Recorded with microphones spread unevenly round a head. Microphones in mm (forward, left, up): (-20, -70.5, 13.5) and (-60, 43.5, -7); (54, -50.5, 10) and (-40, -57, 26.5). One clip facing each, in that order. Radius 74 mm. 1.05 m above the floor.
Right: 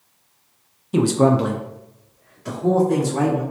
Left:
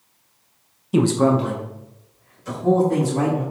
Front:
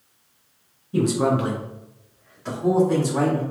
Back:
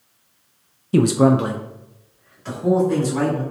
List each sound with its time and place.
0.9 s a man speaking: 170° right, 0.6 m; by 3.4 s 65° right, 3 m